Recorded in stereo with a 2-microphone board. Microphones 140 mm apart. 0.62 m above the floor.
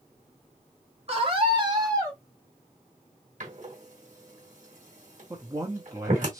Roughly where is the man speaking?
Right.